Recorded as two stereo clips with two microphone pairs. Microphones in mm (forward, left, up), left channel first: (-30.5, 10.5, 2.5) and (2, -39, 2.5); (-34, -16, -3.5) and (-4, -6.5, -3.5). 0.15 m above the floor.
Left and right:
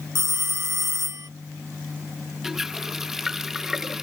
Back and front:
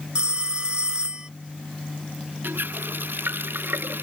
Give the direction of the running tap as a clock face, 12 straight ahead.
11 o'clock.